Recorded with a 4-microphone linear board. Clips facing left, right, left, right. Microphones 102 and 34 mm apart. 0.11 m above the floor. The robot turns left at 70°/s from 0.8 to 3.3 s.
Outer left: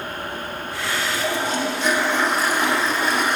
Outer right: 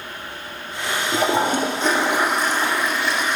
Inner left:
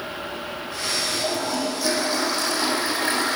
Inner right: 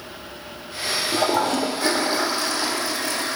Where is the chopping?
No chopping in this recording.